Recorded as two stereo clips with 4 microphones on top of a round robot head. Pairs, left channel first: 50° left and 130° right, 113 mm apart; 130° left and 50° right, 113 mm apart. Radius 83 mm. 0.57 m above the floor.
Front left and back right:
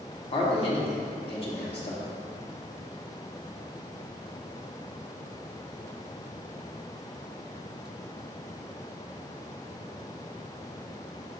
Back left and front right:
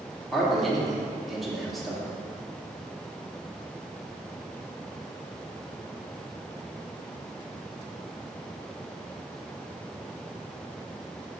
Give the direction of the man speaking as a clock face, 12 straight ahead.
11 o'clock.